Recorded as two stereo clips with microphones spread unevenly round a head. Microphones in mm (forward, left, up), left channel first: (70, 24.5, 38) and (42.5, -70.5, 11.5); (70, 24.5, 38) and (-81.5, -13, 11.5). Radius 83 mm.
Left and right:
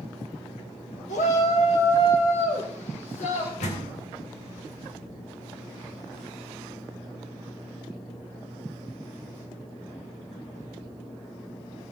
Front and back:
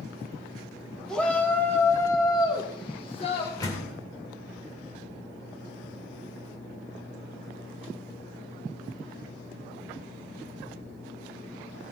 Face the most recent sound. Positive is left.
turn(degrees=80)